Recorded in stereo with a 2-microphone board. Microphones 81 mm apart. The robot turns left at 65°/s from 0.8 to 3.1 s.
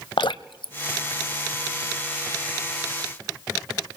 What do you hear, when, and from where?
0.2 s dripping: 80° left, 0.5 m; by 2.1 s 20° left (ahead or behind), 0.5 m